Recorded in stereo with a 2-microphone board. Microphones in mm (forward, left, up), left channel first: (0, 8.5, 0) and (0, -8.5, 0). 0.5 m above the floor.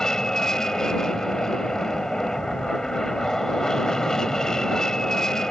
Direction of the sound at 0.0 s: 35° left (ahead or behind).